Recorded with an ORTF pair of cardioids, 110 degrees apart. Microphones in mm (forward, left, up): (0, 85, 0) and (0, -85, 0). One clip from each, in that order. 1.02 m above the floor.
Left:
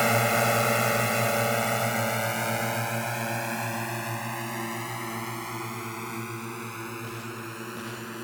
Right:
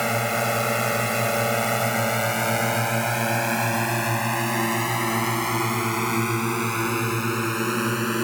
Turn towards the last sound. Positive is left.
turn(degrees=-70)